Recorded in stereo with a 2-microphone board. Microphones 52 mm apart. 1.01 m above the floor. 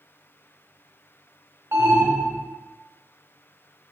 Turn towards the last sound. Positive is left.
turn(degrees=-50)  # may be behind; listen again after turning